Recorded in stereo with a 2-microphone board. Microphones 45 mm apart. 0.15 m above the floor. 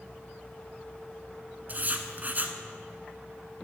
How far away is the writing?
About 1.1 m.